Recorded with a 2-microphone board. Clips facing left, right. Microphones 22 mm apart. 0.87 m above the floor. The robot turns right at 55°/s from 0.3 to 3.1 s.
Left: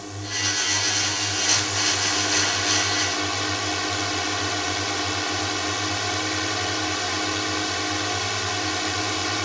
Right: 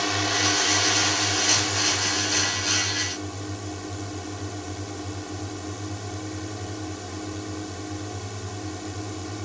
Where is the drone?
70° right; by 9.5 s 80° left.